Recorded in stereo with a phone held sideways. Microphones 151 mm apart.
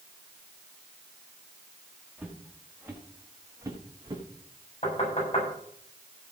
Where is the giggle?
I don't hear a giggle.